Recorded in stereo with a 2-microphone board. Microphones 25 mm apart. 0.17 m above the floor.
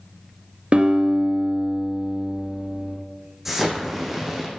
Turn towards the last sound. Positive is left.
turn(degrees=-15)  # may be behind; listen again after turning